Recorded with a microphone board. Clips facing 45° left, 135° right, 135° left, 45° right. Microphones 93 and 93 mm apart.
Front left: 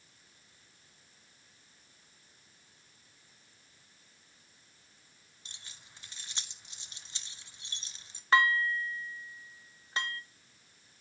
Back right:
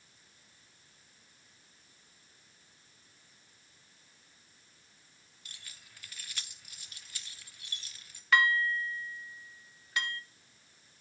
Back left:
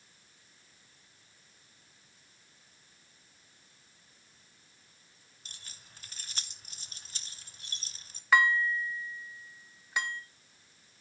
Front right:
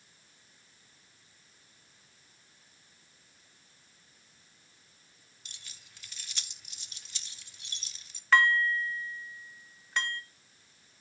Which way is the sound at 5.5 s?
100° left.